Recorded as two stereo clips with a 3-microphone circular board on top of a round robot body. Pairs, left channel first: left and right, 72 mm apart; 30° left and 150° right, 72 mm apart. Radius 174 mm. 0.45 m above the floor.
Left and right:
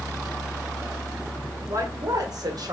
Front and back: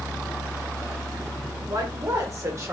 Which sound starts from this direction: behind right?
A woman speaking, at 1.7 s.